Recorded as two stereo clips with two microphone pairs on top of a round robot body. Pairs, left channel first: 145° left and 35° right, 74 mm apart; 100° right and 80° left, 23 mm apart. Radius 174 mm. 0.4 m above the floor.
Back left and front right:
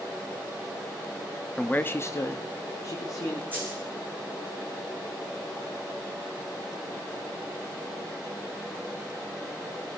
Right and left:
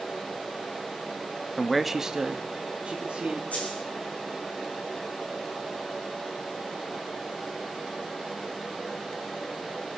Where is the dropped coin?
100° right, 2.5 m.